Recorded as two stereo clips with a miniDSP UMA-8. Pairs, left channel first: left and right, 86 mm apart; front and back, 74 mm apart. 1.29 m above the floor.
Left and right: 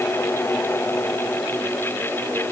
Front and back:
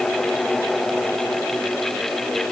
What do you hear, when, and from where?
Only background noise.